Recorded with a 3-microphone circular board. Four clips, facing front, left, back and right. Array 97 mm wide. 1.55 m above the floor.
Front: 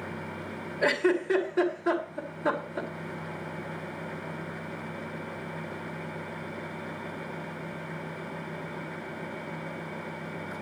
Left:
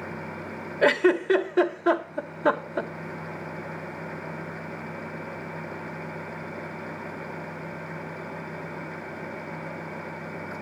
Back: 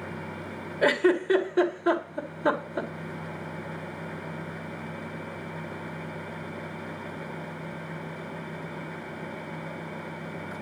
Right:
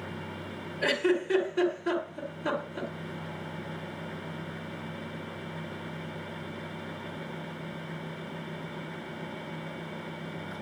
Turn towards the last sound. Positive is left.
turn(degrees=110)